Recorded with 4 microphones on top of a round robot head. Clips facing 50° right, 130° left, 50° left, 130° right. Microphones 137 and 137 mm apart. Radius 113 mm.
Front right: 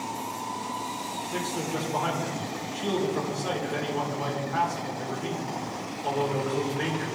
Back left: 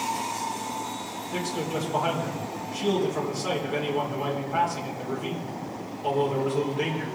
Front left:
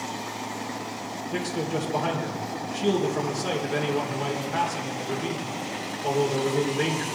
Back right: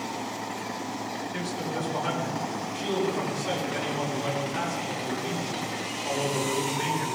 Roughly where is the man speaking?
Ahead left.